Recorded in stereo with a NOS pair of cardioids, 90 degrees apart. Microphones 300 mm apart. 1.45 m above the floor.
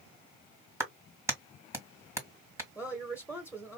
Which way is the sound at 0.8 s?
10° right.